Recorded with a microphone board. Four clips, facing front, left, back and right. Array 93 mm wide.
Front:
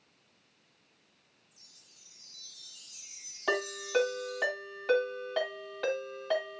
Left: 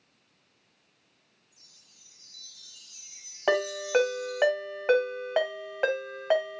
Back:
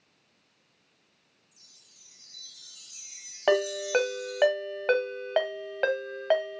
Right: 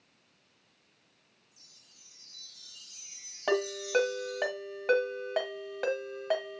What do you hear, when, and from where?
1.5 s a chime: 175° right, 4 m
3.5 s a ringtone: 150° left, 1.4 m